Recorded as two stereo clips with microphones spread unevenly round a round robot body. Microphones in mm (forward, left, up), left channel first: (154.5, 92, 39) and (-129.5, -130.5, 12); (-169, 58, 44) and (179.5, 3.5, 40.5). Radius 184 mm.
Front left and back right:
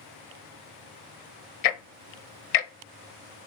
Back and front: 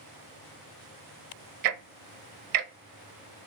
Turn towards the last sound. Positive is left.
turn(degrees=30)